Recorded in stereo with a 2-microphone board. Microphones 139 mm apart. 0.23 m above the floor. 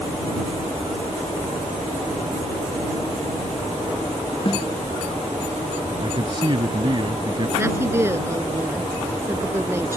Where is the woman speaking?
20° right (ahead or behind).